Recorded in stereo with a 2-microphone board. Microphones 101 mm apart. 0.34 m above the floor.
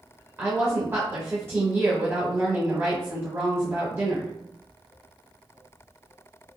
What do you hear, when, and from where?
0.4 s a woman speaking: 25° right (ahead or behind), 0.9 m